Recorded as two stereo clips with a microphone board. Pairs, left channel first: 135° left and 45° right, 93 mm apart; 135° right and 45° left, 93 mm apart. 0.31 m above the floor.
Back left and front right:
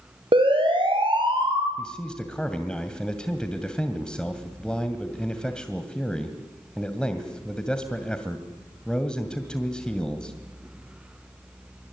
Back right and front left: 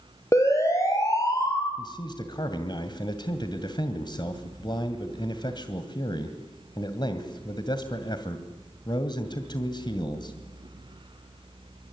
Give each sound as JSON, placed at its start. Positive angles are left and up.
{"t": 0.3, "sound": "a siren", "azimuth_deg": -75, "distance_m": 7.5}
{"t": 1.8, "sound": "a man speaking", "azimuth_deg": -145, "distance_m": 2.0}